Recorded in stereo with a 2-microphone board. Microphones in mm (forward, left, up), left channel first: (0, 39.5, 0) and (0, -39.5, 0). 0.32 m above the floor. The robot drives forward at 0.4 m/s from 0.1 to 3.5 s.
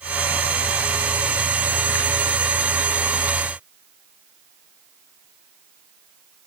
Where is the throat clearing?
No throat clearing in this recording.